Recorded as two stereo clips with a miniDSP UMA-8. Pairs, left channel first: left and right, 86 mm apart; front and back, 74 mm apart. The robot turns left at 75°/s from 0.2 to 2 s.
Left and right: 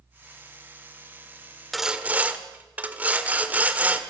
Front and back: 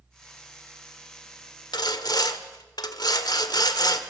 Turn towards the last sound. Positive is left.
turn(degrees=-20)